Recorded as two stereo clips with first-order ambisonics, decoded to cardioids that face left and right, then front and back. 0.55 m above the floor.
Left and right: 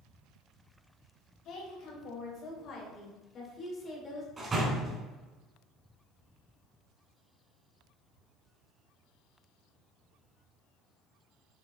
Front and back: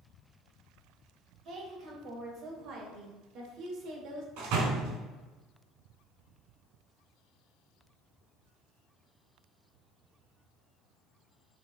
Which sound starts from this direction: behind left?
A woman speaking, at 1.4 s.